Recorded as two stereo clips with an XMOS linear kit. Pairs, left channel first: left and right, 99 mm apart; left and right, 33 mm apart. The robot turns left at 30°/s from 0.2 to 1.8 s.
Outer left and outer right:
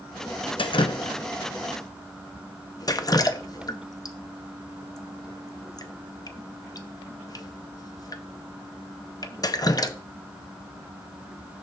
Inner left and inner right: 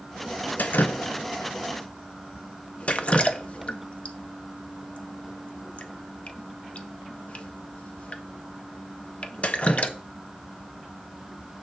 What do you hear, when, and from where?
0.6 s dripping: 65° left (ahead or behind), 0.6 m; by 9.9 s 40° left (ahead or behind), 0.6 m